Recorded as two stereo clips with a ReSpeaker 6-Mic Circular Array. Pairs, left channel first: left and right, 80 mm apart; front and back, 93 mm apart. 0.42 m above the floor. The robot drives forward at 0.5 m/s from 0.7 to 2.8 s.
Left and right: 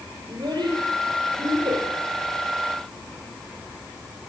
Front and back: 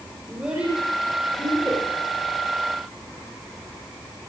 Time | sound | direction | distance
0.3 | a child speaking | 105° right | 8 m